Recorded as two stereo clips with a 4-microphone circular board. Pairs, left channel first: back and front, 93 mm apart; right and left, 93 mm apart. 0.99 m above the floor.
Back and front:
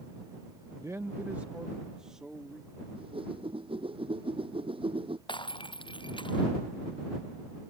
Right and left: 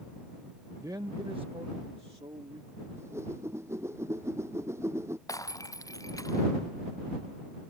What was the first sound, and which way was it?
A man speaking, 40° left.